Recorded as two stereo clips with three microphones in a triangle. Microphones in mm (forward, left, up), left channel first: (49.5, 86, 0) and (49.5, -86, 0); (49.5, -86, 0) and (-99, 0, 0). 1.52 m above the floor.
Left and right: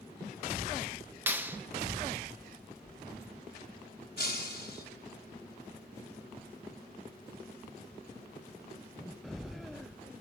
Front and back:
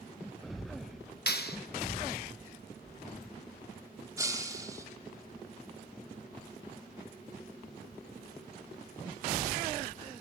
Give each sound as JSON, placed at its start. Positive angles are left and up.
{"t": 1.3, "sound": "a clap", "azimuth_deg": -10, "distance_m": 1.1}
{"t": 4.2, "sound": "breaking glass", "azimuth_deg": 80, "distance_m": 3.0}